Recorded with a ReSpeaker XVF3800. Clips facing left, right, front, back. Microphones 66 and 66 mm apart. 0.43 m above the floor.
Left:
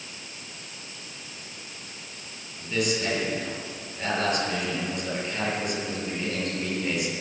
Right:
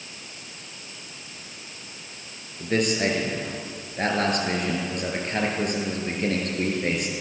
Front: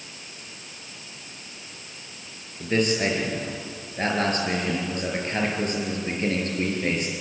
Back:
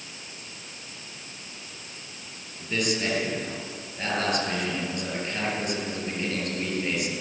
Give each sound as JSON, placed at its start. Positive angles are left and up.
{"t": 2.6, "sound": "a man speaking", "azimuth_deg": -50, "distance_m": 8.5}